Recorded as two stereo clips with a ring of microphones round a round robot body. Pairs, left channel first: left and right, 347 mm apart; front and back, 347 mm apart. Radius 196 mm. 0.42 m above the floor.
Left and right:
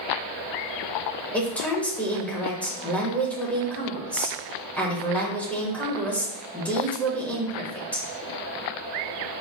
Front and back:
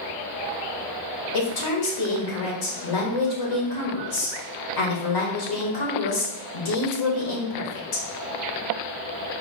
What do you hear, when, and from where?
1.3 s a woman speaking: 5° left, 1.6 m